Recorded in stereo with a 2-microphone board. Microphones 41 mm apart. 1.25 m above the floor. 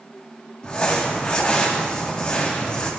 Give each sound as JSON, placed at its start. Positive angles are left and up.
{"t": 0.6, "sound": "crumpling", "side_deg": 30, "distance_m": 2.5}